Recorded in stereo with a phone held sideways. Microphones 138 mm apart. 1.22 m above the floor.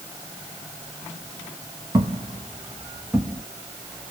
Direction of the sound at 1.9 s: 25° right (ahead or behind).